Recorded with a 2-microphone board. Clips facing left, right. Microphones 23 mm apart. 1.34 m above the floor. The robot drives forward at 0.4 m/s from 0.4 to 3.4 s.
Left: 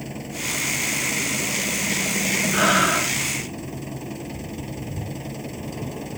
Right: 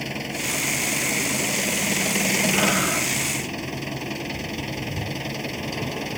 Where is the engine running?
55° right (ahead or behind); by 6.2 s 50° right (ahead or behind).